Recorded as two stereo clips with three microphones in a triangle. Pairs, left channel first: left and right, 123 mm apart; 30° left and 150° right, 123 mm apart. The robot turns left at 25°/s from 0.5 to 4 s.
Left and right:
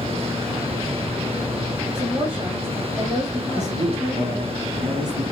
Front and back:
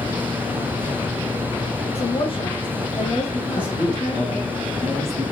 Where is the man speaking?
50° right, 5 m; by 5.2 s 60° right, 5 m.